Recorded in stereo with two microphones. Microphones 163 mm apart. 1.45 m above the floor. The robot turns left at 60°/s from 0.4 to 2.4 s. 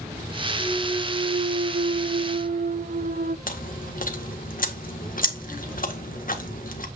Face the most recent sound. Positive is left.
turn(degrees=60)  # may be behind; listen again after turning